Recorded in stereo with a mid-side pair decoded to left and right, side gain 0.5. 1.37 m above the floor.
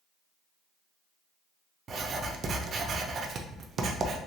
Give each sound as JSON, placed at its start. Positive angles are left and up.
{"t": 1.9, "sound": "writing", "azimuth_deg": -45, "distance_m": 0.6}